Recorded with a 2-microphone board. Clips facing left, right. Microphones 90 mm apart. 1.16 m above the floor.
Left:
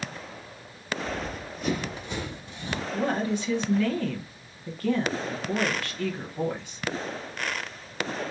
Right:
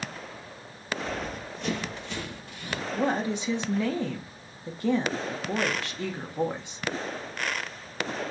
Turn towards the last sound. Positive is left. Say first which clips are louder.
# even
turn(degrees=-20)  # may be behind; listen again after turning